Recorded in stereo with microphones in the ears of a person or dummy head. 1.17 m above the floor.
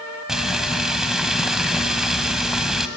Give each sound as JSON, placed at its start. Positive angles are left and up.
{"t": 0.3, "sound": "frying", "side_deg": 0, "distance_m": 1.4}